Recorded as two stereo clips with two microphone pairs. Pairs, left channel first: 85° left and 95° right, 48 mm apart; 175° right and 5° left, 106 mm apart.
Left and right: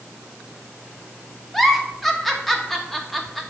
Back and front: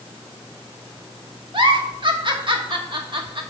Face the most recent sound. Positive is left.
turn(degrees=-5)